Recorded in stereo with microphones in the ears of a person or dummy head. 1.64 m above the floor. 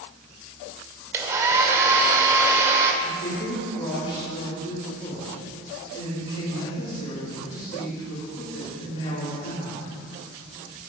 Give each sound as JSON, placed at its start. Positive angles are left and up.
{"t": 1.1, "sound": "a hair dryer", "side_deg": -15, "distance_m": 1.5}
{"t": 3.0, "sound": "a woman speaking", "side_deg": 45, "distance_m": 4.5}